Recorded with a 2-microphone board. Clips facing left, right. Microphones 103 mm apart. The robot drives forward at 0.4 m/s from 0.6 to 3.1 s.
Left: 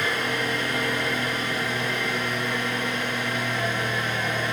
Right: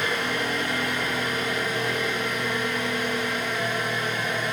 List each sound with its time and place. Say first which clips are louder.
0.0 s an engine running: even; 25° right (ahead or behind), 2 m; by 4.5 s 15° right (ahead or behind), 3 m